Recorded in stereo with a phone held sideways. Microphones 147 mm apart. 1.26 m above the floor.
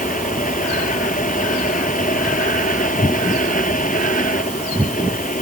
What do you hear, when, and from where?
0.0 s a fan: 65° left (ahead or behind)